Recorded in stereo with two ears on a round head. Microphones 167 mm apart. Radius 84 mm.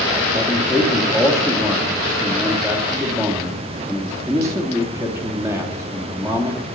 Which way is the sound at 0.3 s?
15° right (ahead or behind).